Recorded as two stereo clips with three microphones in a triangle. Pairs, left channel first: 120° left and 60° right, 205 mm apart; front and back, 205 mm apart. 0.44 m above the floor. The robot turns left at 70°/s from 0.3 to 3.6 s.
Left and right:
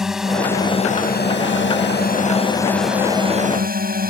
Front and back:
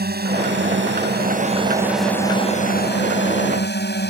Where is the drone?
150° right; by 4.1 s 25° right.